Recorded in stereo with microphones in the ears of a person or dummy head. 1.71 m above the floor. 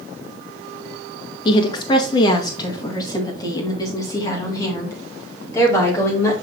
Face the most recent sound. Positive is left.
turn(degrees=20)  # may be behind; listen again after turning